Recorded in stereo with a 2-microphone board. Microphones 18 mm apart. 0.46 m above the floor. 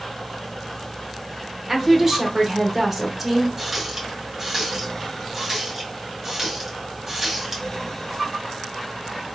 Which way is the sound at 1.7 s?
15° right (ahead or behind).